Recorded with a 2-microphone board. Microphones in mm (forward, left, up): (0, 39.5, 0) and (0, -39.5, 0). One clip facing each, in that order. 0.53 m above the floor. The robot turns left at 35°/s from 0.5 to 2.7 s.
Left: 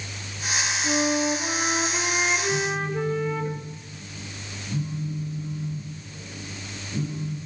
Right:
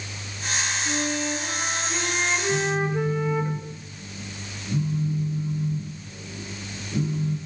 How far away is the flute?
About 2.5 m.